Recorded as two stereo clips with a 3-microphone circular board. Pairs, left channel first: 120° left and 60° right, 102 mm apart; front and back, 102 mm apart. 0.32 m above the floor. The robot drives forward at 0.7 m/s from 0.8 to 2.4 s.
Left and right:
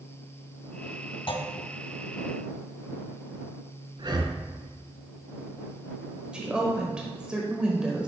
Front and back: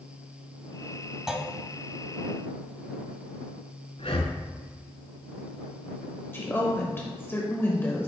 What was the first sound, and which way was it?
A clunk, 95° left.